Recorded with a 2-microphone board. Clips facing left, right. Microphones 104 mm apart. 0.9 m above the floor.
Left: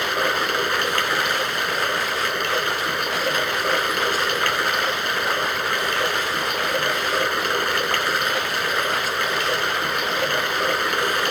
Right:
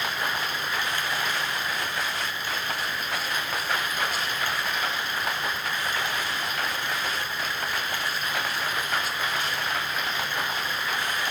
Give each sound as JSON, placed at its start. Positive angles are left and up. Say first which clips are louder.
{"t": 0.0, "sound": "running water", "louder": "left 7 dB", "side_deg": 75}